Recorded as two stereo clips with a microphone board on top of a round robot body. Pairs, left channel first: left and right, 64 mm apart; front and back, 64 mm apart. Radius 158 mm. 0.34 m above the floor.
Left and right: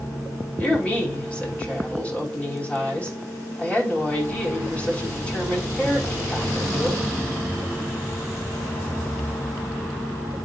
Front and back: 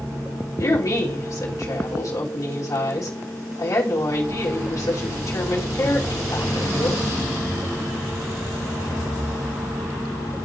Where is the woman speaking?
20° left, 3 m.